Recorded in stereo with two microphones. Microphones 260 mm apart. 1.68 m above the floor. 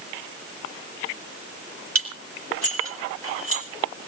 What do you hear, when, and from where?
1.9 s dishes clattering: 75° right (ahead or behind), 4.5 m